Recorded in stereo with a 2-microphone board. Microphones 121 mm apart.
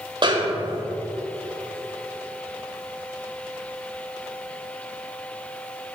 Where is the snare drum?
45° right (ahead or behind), 1.1 m.